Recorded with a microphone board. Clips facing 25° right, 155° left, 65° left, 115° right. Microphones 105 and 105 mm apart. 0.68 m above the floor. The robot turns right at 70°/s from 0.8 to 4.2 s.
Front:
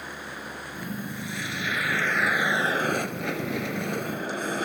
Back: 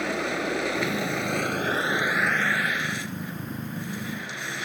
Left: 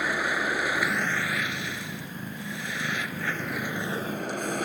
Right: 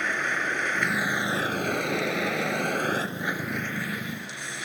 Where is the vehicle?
150° left; by 4.7 s 25° left.